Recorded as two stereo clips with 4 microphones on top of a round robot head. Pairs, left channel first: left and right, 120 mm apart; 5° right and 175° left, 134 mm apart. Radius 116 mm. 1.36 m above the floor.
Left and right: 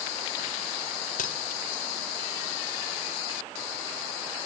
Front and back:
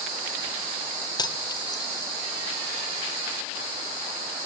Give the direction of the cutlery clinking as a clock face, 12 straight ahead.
10 o'clock.